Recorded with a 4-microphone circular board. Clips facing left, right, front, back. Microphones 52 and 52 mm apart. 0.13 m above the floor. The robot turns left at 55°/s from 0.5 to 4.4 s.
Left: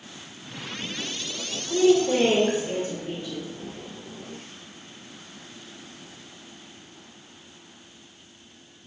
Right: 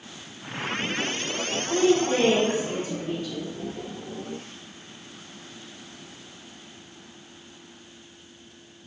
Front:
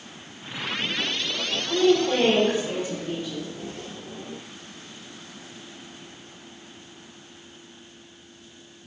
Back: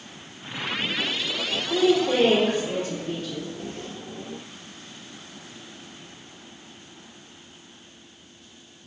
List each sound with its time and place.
1.7 s a woman speaking: 130° left, 1.3 m; by 3.5 s 30° left, 1.3 m